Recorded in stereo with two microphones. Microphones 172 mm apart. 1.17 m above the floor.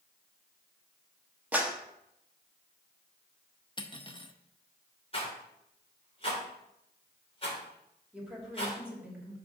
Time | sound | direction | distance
1.5 | a clap | 10° right (ahead or behind) | 1.2 m
3.8 | cutlery clinking | 30° left (ahead or behind) | 0.6 m
5.1 | a rattle | 35° left (ahead or behind) | 3 m
8.1 | a woman speaking | 5° right (ahead or behind) | 3 m